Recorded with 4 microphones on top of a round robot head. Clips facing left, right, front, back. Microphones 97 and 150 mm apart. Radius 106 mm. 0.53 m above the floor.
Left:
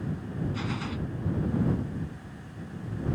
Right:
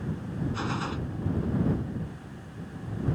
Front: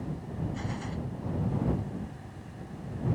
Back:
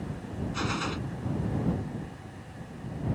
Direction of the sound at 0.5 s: 160° right.